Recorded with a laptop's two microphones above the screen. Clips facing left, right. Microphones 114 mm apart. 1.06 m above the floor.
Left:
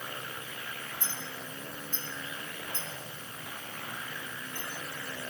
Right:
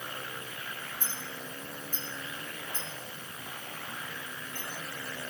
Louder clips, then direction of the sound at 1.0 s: Even; 15° right (ahead or behind).